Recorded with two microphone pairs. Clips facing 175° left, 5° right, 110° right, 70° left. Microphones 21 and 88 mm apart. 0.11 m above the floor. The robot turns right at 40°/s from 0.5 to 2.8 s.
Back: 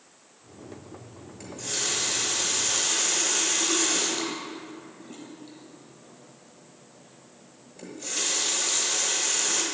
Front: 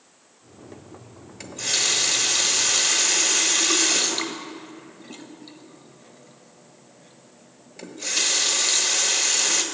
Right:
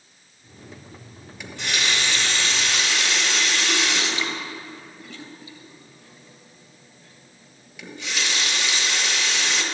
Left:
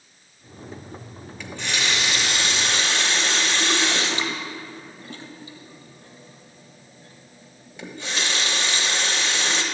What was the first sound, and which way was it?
A running tap, 35° right.